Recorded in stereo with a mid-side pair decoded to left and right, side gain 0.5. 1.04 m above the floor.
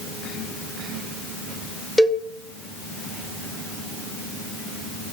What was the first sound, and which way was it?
A cowbell, 10° left.